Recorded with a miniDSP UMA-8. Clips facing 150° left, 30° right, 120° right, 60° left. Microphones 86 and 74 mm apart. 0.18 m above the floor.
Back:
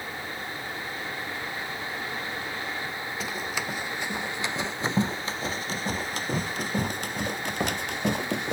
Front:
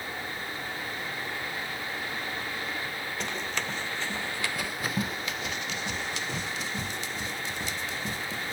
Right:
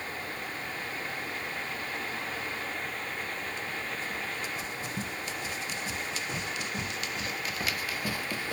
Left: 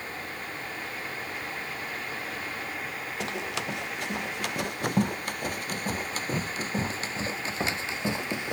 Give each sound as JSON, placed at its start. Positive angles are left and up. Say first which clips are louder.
{"t": 3.2, "sound": "running footsteps", "louder": "back 1 dB, left 4 dB", "azimuth_deg": 65}